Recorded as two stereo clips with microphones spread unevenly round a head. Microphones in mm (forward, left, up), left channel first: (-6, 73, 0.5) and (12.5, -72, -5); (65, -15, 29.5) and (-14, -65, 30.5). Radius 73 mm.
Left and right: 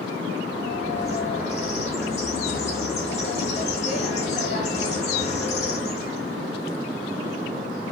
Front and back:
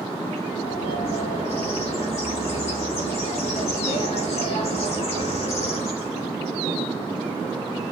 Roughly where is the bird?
Ahead left.